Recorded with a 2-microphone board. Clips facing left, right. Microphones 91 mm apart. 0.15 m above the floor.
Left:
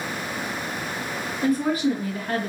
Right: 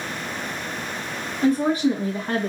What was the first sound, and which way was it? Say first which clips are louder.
A woman speaking: right 3 dB; 25° right (ahead or behind).